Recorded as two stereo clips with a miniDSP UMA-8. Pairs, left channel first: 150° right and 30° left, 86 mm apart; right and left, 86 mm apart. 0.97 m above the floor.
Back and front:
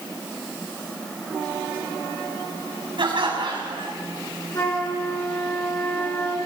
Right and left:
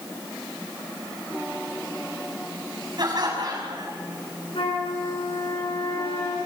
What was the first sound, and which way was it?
Laughter, 50° left.